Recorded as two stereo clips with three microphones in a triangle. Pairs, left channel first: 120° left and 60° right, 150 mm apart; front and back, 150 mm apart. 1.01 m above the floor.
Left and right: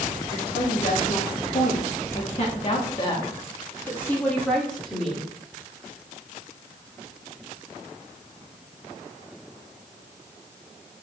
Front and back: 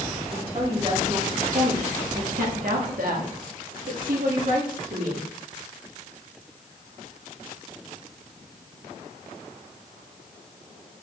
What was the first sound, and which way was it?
A woman speaking, 130° left.